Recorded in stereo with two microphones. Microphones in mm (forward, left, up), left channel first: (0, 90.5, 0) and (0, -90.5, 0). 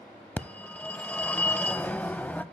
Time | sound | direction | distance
0.4 | a phone ringing | 10° left (ahead or behind) | 0.5 m